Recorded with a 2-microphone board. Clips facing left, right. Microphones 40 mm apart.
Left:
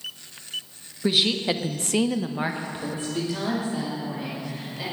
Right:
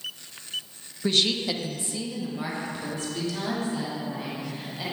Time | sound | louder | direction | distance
1.0 | a woman speaking | left 2 dB | 10° left (ahead or behind) | 1.4 m